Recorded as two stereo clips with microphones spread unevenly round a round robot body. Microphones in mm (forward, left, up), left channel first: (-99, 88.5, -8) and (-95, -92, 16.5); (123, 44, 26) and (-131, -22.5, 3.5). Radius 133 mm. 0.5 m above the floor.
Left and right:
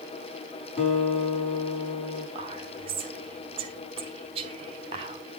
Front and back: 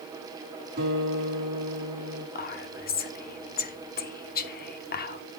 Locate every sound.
0.8 s a guitar: 140° left, 5.5 m
2.4 s whispering: 30° right, 1.1 m